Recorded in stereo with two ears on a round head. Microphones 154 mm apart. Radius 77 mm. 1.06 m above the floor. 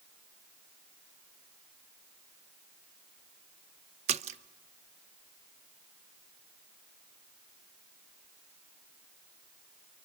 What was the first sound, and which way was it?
A splash, 40° right (ahead or behind).